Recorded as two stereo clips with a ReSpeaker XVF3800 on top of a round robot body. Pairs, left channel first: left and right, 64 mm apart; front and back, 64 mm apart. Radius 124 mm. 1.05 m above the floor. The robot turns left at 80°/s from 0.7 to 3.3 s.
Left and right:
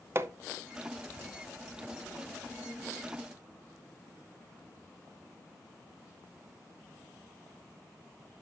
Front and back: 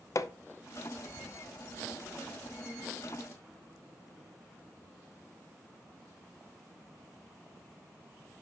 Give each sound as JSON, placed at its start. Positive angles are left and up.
{"t": 0.1, "sound": "hammering", "azimuth_deg": -40, "distance_m": 0.6}